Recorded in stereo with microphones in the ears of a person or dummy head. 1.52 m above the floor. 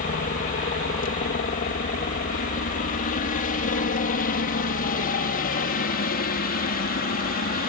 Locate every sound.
0.0 s a helicopter: 40° left (ahead or behind); by 7.7 s 45° left (ahead or behind)